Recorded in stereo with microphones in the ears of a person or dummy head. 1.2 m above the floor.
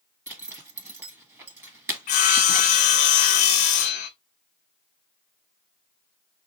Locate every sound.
0.3 s a zipper: 10° right (ahead or behind), 1.5 m
2.1 s sawing: 45° left (ahead or behind), 0.7 m